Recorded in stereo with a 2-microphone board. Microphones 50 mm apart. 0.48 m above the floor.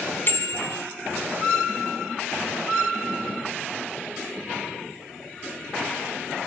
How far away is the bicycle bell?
About 2.5 m.